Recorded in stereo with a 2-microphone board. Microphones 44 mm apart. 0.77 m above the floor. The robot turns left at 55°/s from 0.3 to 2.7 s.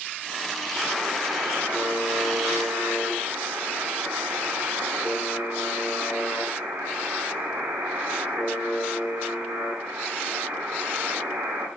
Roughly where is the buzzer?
Ahead.